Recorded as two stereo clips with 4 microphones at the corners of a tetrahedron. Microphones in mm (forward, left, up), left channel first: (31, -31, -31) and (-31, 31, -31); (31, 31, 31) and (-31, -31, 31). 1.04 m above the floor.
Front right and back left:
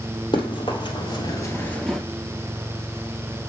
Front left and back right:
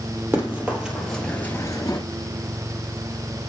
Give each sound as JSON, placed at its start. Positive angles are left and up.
{"t": 0.3, "sound": "running footsteps", "azimuth_deg": -65, "distance_m": 2.5}